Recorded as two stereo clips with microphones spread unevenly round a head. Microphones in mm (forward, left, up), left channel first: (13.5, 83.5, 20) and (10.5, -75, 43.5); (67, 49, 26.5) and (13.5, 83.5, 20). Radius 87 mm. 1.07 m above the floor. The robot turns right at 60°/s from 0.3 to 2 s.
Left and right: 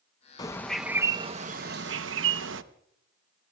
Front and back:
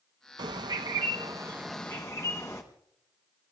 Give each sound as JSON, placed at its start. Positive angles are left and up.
{"t": 0.4, "sound": "a bird", "azimuth_deg": 155, "distance_m": 0.7}